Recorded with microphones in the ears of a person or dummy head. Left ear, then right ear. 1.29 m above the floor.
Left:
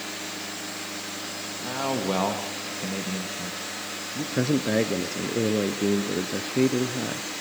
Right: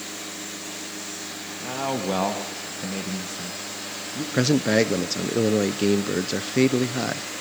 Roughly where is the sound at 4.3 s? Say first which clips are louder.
Right 4 dB; right.